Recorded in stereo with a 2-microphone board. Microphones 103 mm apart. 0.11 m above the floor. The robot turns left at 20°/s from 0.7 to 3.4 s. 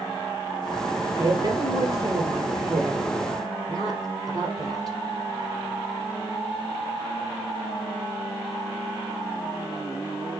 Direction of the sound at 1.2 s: 90° right.